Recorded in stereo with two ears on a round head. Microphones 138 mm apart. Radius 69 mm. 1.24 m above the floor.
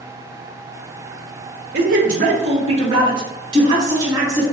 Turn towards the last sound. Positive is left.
turn(degrees=-20)  # may be behind; listen again after turning